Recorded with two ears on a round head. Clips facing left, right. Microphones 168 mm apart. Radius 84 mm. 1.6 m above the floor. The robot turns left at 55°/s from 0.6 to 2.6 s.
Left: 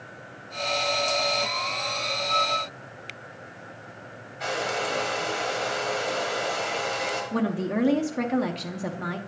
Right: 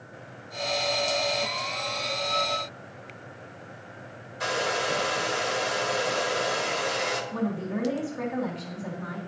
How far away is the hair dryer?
About 1.2 m.